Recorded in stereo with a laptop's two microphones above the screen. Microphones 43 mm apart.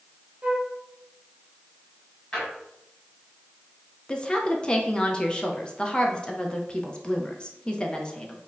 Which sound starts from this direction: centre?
A drawer, at 2.3 s.